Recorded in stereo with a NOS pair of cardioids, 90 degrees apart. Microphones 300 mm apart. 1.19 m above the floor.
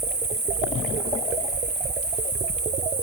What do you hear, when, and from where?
0.0 s an insect: 30° right, 6.5 m